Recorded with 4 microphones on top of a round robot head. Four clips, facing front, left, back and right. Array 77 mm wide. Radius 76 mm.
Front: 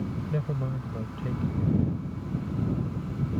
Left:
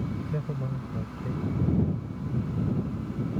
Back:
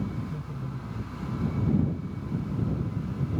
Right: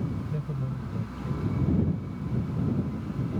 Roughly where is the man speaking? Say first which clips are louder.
Left 1 dB, front 6 dB; ahead left.